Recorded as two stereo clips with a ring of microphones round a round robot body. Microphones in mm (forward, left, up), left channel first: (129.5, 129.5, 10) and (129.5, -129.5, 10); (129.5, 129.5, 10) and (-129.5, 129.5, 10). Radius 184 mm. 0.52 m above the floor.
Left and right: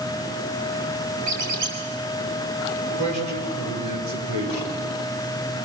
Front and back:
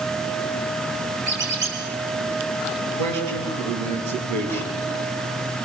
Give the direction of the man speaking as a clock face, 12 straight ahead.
5 o'clock.